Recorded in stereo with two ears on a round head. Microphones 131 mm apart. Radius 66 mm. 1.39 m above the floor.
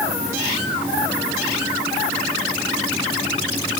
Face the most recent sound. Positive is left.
No sound to turn to.